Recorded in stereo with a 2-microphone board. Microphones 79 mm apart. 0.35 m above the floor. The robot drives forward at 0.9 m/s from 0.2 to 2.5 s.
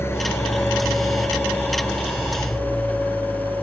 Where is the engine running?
30° left (ahead or behind); by 3.6 s 20° left (ahead or behind).